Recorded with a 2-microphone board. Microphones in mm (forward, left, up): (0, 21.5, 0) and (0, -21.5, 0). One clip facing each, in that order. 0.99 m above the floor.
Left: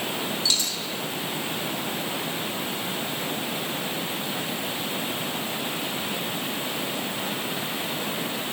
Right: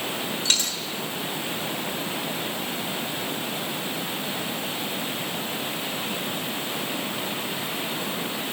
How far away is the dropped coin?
About 1.7 m.